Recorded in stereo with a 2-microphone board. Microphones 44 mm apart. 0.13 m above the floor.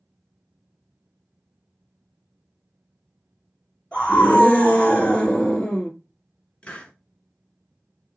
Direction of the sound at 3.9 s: 30° left (ahead or behind).